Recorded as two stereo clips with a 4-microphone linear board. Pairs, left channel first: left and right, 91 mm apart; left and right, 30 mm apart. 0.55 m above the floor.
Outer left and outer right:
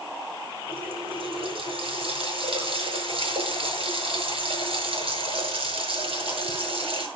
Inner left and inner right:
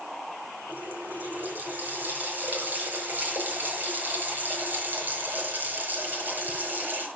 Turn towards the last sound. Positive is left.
turn(degrees=-80)